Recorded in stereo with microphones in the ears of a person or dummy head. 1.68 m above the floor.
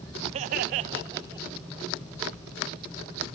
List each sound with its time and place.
0.3 s laughter: 35° right (ahead or behind), 0.7 m; by 1.6 s 10° right (ahead or behind), 1.4 m